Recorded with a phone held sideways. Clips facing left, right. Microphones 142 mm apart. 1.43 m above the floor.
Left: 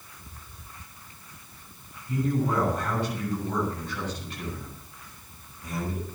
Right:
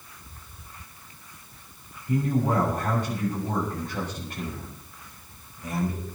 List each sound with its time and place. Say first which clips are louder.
2.1 s a man speaking: right 2 dB; 45° right (ahead or behind), 7.5 m